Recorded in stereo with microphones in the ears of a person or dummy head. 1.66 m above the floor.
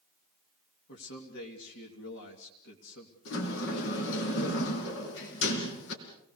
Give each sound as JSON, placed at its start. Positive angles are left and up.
{"t": 0.9, "sound": "a man speaking", "side_deg": 70, "distance_m": 3.0}
{"t": 3.2, "sound": "a sliding door", "side_deg": 70, "distance_m": 4.0}